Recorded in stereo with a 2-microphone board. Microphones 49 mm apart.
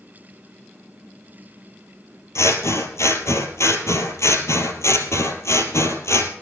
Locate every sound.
2.4 s scissors: 80° left, 2 m